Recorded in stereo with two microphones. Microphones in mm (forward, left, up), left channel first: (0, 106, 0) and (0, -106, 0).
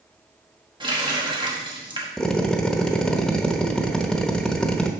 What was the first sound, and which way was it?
A running tap, 20° right (ahead or behind).